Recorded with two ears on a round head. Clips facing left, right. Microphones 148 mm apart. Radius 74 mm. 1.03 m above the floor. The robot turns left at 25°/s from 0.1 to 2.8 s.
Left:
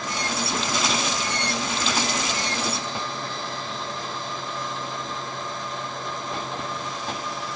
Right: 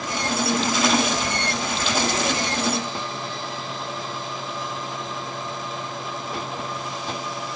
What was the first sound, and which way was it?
Only background noise.